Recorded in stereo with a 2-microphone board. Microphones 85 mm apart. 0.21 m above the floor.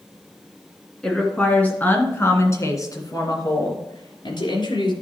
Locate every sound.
1.0 s a woman speaking: 5° left (ahead or behind), 2.5 m; by 4.9 s 65° left (ahead or behind), 3 m